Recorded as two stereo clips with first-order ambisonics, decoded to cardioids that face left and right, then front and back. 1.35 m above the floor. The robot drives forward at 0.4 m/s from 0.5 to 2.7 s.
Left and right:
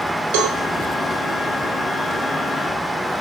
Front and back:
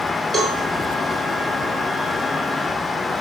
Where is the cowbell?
100° right, 2.5 m.